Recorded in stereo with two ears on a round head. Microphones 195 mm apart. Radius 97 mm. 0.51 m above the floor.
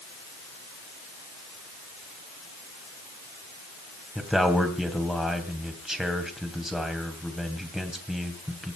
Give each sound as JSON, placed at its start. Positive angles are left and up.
{"t": 4.2, "sound": "a man speaking", "side_deg": 0, "distance_m": 3.0}